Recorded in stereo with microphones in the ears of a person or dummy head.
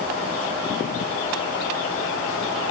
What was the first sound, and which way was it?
Only background noise.